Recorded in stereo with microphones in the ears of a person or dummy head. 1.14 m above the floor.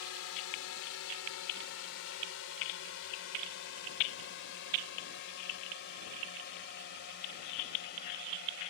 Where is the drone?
70° left (ahead or behind); by 8.7 s 45° left (ahead or behind).